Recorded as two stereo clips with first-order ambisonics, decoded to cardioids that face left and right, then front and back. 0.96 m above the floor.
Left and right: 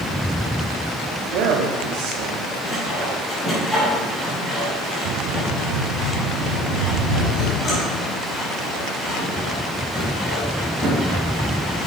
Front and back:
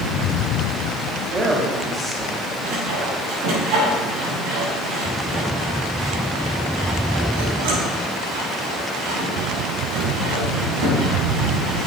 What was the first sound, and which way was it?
A man speaking, 110° right.